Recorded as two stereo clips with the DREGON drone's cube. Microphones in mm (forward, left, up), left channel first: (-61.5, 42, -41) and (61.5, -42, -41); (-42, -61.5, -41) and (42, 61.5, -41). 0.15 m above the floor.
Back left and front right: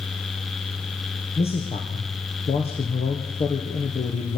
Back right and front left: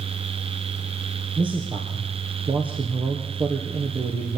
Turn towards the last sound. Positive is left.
turn(degrees=105)